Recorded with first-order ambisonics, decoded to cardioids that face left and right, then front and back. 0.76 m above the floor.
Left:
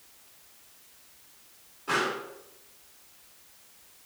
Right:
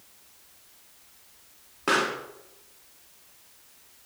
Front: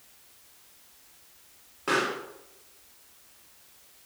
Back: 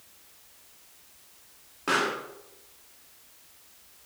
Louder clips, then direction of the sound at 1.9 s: Right 3 dB, back 1 dB; 90° right.